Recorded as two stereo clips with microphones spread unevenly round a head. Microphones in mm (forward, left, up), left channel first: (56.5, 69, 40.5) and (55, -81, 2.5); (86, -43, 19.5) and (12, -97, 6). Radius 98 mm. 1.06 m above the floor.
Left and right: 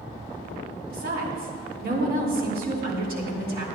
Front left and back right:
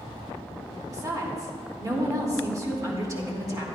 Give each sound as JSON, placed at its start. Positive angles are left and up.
{"t": 0.9, "sound": "a woman speaking", "azimuth_deg": -95, "distance_m": 2.5}